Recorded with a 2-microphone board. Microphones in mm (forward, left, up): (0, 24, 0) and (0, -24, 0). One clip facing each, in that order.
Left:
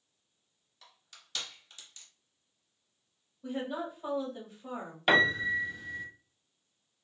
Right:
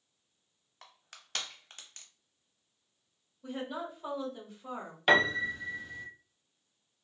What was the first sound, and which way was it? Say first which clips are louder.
Crushing: right 3 dB; 50° right (ahead or behind).